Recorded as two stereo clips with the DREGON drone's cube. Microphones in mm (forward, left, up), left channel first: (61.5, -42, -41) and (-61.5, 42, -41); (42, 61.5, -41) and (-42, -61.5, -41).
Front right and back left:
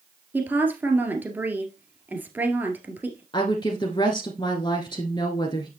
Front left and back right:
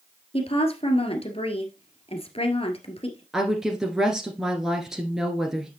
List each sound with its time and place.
0.3 s a woman speaking: 75° left, 1.8 m
3.3 s a woman speaking: 40° right, 1.3 m